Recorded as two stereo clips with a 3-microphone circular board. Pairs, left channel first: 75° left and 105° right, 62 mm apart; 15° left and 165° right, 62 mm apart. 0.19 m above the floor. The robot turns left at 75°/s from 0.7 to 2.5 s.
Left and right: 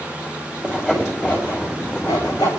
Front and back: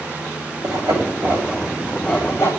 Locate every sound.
0.6 s sawing: 170° right, 5 m; by 2.5 s 55° left, 5 m